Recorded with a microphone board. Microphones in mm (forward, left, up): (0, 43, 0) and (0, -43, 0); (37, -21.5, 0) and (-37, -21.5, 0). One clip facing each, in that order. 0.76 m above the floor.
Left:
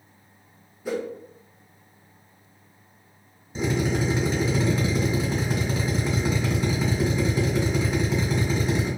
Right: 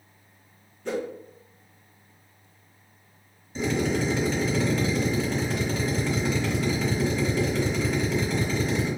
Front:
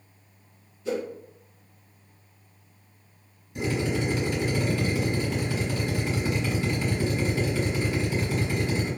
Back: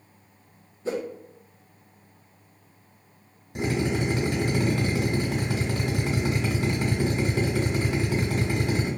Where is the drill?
160° left, 1.3 m.